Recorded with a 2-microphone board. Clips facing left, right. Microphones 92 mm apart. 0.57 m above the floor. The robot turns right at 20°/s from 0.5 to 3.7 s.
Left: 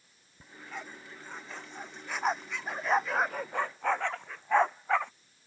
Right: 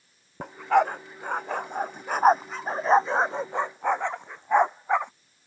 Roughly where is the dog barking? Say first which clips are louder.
Right 22 dB; right.